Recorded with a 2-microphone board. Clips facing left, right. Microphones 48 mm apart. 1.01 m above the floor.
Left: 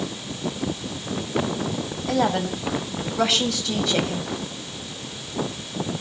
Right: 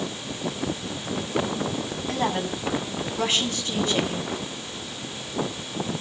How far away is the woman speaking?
About 5.5 m.